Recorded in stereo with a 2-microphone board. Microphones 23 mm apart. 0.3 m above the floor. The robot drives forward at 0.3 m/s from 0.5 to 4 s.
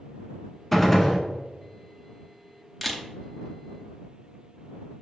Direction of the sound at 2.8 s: Centre (ahead or behind).